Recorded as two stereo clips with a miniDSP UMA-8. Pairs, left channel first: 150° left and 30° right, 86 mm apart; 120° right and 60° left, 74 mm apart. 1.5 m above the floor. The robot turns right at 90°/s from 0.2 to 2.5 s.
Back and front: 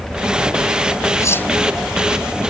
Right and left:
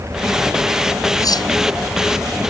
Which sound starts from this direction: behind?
Cutlery clinking, at 1.2 s.